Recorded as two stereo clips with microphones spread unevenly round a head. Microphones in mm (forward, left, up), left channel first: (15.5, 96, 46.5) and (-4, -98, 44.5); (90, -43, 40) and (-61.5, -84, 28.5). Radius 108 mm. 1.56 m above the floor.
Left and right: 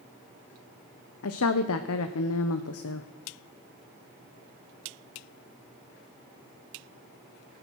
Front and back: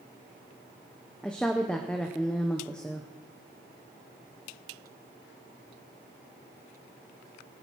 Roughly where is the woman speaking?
Left.